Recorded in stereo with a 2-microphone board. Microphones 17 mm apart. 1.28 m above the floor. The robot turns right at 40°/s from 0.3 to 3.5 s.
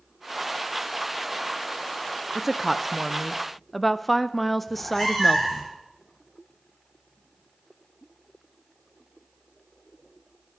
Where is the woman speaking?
10° right (ahead or behind), 0.5 m; by 5.7 s 10° left (ahead or behind), 0.5 m.